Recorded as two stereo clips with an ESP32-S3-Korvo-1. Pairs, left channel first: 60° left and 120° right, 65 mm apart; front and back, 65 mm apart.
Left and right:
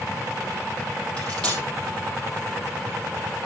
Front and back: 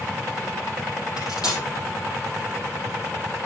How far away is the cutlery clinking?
About 4.5 m.